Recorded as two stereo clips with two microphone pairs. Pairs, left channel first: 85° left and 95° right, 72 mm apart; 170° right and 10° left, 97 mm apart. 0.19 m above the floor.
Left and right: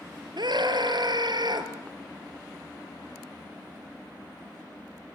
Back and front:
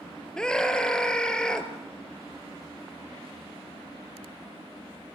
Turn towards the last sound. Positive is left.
turn(degrees=-85)